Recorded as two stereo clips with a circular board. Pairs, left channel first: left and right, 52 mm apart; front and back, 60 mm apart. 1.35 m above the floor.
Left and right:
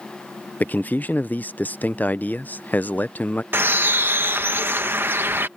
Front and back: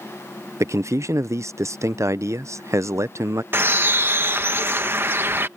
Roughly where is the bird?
Behind right.